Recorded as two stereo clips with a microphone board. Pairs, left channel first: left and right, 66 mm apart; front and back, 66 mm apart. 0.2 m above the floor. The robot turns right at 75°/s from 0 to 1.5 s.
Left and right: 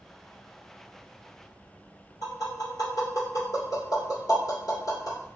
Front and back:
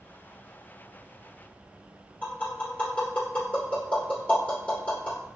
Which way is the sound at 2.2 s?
65° left.